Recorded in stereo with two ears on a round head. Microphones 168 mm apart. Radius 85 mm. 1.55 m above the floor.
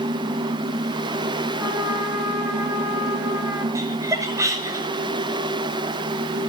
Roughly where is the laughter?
Centre.